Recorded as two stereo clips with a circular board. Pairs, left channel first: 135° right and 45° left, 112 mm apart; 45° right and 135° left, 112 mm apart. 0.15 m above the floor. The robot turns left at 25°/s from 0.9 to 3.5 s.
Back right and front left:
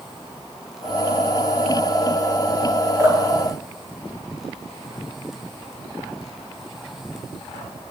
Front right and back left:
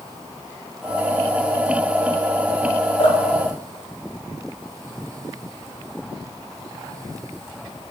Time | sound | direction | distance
3.0 | dripping | 10° right | 9.5 m